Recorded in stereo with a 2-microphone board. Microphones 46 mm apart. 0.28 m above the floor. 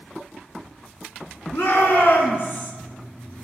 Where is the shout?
65° left (ahead or behind), 3 m; by 2.7 s 50° left (ahead or behind), 2 m.